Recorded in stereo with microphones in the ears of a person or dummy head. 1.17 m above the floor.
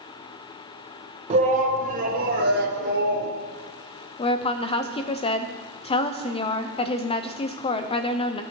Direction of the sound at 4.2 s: 30° left (ahead or behind).